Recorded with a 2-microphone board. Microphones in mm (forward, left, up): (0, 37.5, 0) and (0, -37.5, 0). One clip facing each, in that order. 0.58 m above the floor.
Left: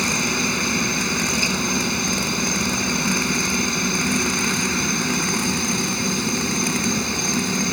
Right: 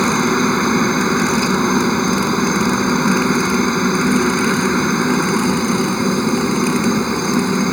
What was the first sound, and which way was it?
A helicopter, 40° right (ahead or behind).